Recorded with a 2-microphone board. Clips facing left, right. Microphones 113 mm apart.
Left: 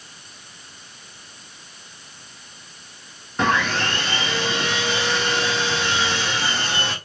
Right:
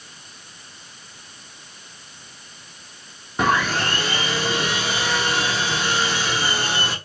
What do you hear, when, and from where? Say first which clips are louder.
3.4 s sawing: right 1 dB; 10° right (ahead or behind), 1.5 m